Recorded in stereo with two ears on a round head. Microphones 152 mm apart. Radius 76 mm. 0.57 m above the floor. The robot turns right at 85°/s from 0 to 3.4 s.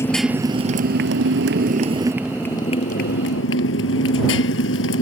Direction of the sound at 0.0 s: 165° left.